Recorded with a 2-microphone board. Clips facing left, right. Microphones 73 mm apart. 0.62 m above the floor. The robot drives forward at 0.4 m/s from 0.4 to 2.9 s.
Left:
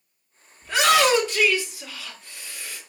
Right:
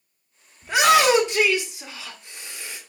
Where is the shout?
20° right (ahead or behind), 1.3 m; by 2.8 s 25° right (ahead or behind), 1.0 m.